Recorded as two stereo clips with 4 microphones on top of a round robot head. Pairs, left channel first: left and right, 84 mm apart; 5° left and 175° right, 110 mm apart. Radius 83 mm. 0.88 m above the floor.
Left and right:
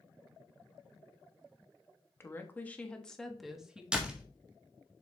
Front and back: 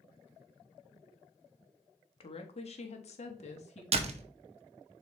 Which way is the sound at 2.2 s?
30° left.